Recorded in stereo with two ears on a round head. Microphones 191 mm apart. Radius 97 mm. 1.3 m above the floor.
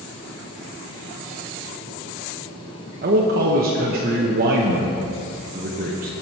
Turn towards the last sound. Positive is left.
turn(degrees=-45)  # may be behind; listen again after turning